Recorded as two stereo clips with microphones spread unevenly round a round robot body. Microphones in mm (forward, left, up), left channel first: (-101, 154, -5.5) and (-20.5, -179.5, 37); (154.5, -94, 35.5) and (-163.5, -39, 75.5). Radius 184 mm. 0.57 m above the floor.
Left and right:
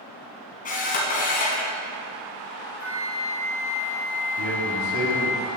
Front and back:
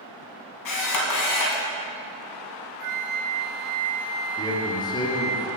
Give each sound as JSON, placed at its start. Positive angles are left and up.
{"t": 0.7, "sound": "a camera shutter", "azimuth_deg": 35, "distance_m": 1.3}
{"t": 2.8, "sound": "a flute", "azimuth_deg": -170, "distance_m": 0.9}
{"t": 4.4, "sound": "a man speaking", "azimuth_deg": -75, "distance_m": 1.6}